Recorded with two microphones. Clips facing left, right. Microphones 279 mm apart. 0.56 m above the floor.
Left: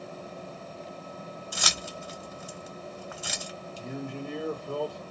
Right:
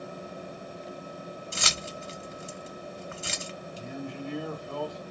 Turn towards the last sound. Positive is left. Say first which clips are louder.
# left 2 dB
turn(degrees=55)  # may be behind; listen again after turning